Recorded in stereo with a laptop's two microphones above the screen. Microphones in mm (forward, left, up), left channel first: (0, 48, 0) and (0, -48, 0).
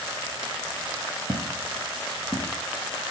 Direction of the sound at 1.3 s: 40° right (ahead or behind).